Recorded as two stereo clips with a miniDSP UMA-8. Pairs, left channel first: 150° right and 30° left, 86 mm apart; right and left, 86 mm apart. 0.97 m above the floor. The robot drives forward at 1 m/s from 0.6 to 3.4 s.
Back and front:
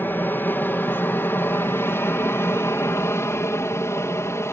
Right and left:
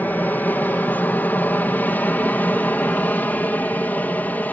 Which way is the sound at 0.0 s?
130° right.